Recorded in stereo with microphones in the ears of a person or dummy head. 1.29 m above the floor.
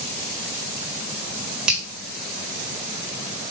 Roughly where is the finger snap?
Centre.